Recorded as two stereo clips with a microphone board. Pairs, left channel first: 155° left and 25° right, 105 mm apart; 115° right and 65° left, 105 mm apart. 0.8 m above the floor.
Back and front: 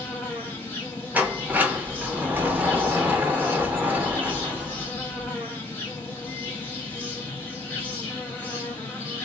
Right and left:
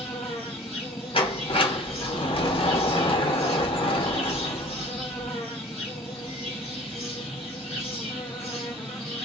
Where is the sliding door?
95° right, 0.6 m.